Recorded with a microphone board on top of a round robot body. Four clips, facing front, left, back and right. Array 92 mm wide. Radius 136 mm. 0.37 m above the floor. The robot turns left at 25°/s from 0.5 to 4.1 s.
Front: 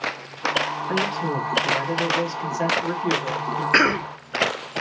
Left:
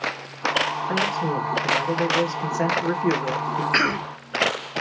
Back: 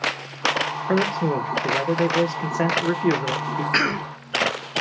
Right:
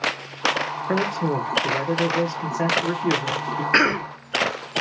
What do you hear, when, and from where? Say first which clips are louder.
0.9 s a man speaking: right 4 dB, back 5 dB; 145° right, 1.4 m; by 3.6 s 145° left, 1.4 m
3.7 s a cough: right 5 dB, front 5 dB; 35° right, 1.2 m; by 4.1 s 45° right, 1.2 m